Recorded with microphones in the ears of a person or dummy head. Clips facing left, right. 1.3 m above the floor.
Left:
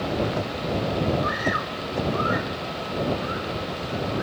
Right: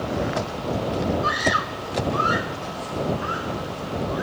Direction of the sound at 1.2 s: 45° right (ahead or behind).